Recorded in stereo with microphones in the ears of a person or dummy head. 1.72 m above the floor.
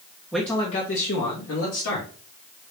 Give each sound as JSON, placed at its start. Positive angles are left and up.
{"t": 0.3, "sound": "a man speaking", "side_deg": 0, "distance_m": 0.6}